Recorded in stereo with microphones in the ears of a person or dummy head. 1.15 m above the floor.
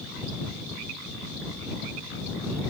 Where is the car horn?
I don't hear a car horn.